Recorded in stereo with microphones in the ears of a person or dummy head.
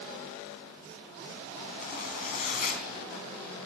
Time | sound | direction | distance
1.8 | a zipper | 45° left (ahead or behind) | 4 m